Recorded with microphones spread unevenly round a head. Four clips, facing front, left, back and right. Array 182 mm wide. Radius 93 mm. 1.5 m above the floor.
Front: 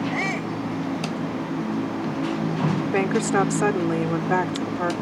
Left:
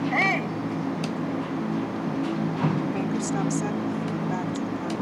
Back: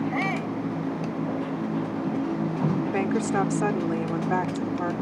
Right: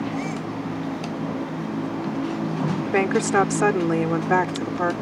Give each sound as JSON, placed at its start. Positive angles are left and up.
{"t": 0.1, "sound": "a shout", "azimuth_deg": 75}
{"t": 2.9, "sound": "a woman speaking", "azimuth_deg": -65}